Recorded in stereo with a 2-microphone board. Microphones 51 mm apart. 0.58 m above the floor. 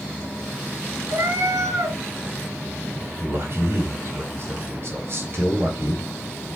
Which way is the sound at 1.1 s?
65° right (ahead or behind).